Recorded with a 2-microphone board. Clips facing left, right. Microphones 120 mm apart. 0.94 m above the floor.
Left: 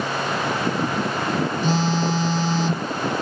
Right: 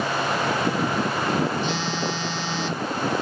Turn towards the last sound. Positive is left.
turn(degrees=40)  # may be behind; listen again after turning